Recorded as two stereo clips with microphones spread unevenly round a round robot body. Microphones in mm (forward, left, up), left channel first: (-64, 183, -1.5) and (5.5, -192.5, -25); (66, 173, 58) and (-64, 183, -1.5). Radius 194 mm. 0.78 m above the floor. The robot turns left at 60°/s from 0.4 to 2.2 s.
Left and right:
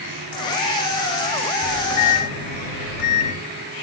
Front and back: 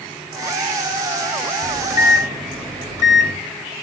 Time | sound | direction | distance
1.6 | a microwave | 160° left | 2.5 m